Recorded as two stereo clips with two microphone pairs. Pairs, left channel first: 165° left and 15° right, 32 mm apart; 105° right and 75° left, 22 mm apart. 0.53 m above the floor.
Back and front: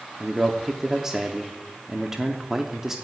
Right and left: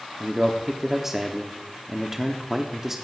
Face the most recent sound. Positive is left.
turn(degrees=40)